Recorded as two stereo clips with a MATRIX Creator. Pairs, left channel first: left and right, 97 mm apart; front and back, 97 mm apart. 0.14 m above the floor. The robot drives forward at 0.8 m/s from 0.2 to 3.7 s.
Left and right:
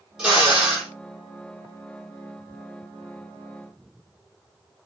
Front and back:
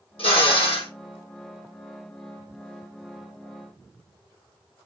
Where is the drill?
5° right, 3.5 m.